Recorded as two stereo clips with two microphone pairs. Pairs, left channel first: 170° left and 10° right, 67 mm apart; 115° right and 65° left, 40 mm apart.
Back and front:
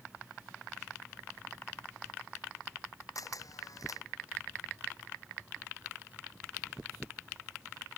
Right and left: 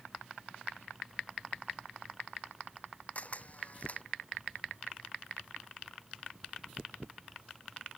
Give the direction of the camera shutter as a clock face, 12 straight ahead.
6 o'clock.